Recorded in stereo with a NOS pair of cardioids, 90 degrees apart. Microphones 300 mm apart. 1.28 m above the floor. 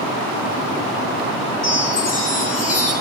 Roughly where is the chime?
Ahead left.